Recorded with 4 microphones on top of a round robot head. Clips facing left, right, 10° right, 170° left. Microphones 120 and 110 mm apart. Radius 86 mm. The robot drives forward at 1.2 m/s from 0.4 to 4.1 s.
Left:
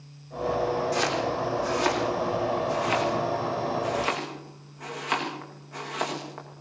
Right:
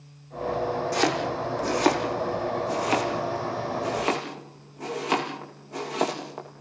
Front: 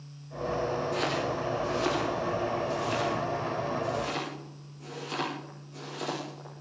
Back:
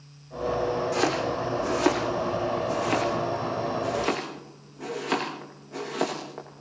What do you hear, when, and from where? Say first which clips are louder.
0.9 s chopping: right 1 dB, back 4 dB; 125° right, 6 m; by 6.6 s 145° right, 9 m